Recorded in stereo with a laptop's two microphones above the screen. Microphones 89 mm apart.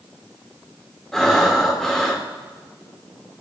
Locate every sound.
1.1 s breathing: 5° left (ahead or behind), 2 m